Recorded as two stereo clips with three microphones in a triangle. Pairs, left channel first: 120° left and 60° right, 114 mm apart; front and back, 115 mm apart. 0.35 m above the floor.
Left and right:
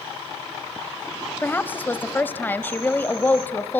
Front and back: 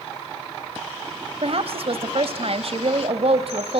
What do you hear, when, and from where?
1.4 s a woman speaking: 170° right, 1.4 m